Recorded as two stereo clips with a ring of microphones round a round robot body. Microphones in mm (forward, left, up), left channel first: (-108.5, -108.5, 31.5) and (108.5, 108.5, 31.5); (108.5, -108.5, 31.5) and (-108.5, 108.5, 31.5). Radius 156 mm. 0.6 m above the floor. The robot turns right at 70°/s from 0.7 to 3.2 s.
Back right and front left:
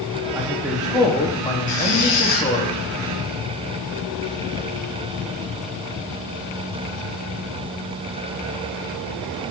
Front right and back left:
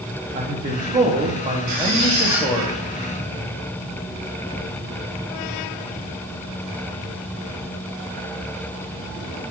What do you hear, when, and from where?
0.3 s a man speaking: 120° left, 1.3 m; by 2.7 s 105° right, 1.3 m
1.7 s a squeak: 170° left, 3.5 m; by 2.5 s 135° right, 3.5 m